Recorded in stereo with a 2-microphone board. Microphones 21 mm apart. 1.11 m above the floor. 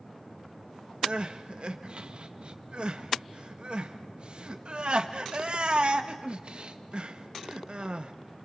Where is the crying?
50° right (ahead or behind), 1.2 m.